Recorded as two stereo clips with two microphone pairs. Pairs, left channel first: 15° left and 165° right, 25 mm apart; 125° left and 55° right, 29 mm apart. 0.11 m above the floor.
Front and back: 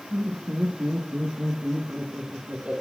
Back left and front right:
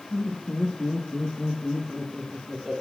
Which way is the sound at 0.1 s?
160° right.